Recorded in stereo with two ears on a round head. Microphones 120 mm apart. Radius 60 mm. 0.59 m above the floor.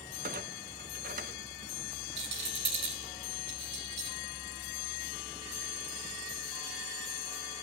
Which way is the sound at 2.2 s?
50° right (ahead or behind).